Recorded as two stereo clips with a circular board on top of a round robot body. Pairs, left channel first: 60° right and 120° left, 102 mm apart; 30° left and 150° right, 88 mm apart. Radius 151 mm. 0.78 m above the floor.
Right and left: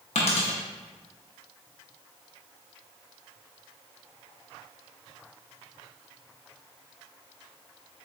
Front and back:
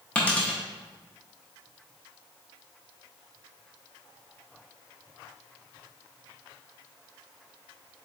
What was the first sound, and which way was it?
A dropped coin, 45° right.